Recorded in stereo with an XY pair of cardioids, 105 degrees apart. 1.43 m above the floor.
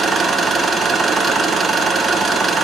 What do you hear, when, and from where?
0.0 s an engine running: 40° right, 0.9 m